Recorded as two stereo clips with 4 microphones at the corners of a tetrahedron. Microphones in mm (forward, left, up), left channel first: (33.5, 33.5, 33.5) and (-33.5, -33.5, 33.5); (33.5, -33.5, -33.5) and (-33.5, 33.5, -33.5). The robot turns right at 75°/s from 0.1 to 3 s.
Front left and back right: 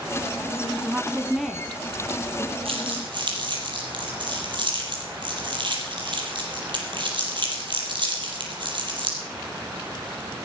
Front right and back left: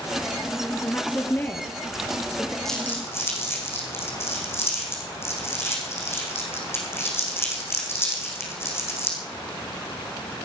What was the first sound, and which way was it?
A woman speaking, 95° right.